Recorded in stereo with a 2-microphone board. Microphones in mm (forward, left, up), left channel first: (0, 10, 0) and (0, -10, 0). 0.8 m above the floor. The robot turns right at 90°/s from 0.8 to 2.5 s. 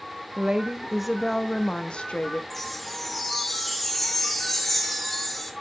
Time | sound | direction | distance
0.4 | a woman speaking | 35° right | 0.8 m
2.5 | a chime | 5° left (ahead or behind) | 1.1 m